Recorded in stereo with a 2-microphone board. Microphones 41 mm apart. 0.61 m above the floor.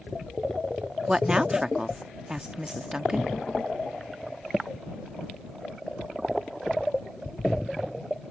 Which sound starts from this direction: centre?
A woman speaking, at 1.1 s.